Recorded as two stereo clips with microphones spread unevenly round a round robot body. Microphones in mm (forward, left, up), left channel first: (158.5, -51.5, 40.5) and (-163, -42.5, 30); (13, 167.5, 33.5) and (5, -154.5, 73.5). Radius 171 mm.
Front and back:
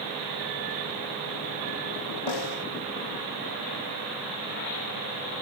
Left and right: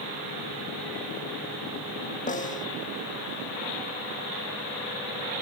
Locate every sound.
2.3 s a snare drum: 20° left